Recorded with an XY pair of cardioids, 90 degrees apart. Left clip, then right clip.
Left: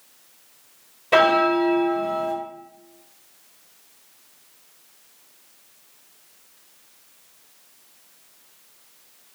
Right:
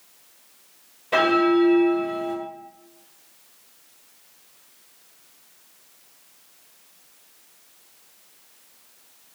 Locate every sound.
1.1 s a bell: 45° left, 0.9 m